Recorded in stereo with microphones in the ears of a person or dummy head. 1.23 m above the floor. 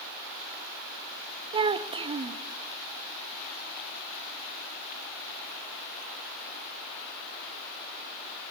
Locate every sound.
1.5 s a child speaking: 30° right (ahead or behind), 1.1 m